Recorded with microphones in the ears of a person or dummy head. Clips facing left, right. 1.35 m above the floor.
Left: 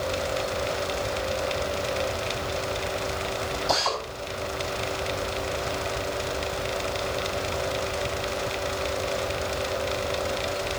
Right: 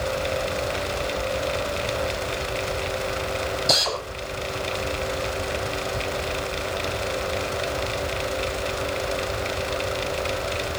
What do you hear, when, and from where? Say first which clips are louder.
3.7 s a drill: left 1 dB; 35° right (ahead or behind), 7 m